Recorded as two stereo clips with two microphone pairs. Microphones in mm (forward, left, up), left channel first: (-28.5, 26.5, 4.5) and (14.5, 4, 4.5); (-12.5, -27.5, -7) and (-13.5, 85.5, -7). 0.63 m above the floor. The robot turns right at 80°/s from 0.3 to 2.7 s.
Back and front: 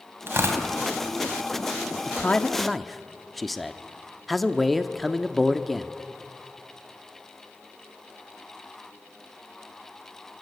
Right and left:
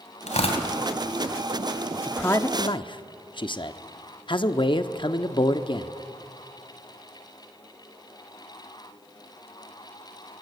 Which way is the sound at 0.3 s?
70° right.